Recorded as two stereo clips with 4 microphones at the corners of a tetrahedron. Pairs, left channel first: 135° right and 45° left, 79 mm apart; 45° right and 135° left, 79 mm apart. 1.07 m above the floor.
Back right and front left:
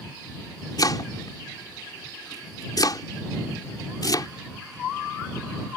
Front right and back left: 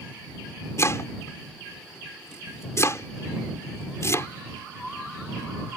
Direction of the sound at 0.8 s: 100° right.